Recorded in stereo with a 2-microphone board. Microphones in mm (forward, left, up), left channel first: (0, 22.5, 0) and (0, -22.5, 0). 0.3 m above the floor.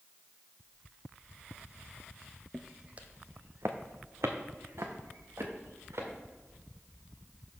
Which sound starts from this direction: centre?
Footsteps, at 2.5 s.